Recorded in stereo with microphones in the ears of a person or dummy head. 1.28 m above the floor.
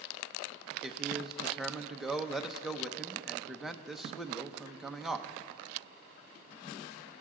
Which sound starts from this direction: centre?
A man speaking, at 0.8 s.